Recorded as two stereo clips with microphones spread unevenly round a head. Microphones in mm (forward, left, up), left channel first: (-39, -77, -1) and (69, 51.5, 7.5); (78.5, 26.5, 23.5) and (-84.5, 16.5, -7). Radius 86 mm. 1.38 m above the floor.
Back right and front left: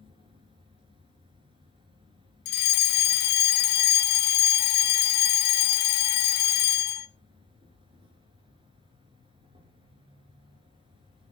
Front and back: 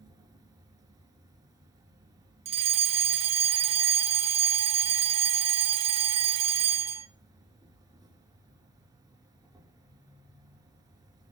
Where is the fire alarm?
135° right, 1.3 m.